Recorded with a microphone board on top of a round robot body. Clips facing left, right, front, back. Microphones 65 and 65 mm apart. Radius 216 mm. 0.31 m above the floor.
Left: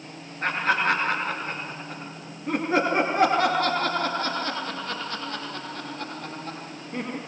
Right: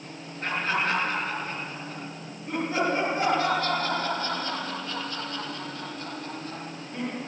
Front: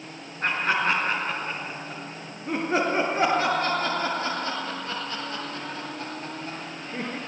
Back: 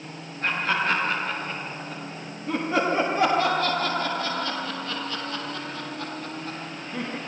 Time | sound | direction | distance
0.4 | laughter | 40° left | 7 m